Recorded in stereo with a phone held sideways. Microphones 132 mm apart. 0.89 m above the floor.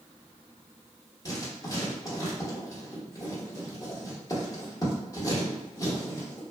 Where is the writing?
25° left (ahead or behind), 1.0 m.